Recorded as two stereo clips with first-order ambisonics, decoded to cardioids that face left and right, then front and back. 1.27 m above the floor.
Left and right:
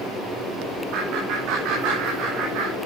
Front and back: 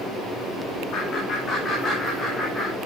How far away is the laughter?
About 2 m.